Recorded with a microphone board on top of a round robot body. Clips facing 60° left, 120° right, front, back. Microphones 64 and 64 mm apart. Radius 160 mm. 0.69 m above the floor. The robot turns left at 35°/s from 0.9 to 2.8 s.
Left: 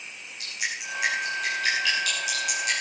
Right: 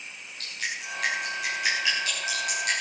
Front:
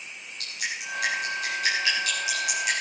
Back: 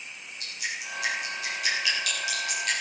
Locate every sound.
0.4 s dripping: 15° right, 9.5 m; by 2.7 s 80° right, 9.5 m